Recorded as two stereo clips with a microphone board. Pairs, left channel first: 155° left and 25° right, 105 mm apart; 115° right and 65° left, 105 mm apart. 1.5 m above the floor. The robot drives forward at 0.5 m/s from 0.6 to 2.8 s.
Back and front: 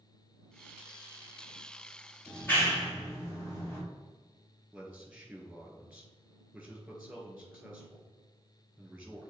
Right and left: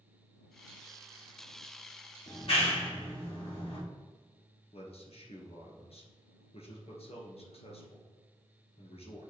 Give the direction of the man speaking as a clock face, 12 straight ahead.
3 o'clock.